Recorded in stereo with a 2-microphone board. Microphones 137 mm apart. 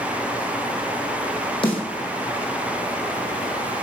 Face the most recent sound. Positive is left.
turn(degrees=35)  # may be behind; listen again after turning